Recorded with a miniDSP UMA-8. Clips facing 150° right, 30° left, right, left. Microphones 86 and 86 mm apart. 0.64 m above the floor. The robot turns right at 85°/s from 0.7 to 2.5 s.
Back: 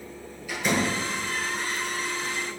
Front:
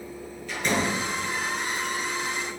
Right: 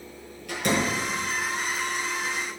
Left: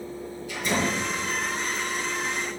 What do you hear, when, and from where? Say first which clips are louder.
0.5 s a door slam: even, right 1 dB; 70° right, 6.5 m; by 1.0 s 45° right, 6.5 m